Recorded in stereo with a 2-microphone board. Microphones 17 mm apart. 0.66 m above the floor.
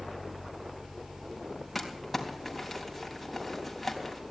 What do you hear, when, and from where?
1.8 s crumpling: 5° left (ahead or behind), 3.5 m